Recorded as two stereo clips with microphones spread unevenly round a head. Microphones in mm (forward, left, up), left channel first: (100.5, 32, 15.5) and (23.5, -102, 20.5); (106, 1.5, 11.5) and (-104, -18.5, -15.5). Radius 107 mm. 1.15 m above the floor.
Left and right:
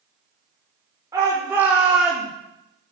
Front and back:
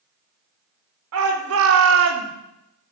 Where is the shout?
165° left, 5 m; by 2.3 s 150° left, 3.5 m.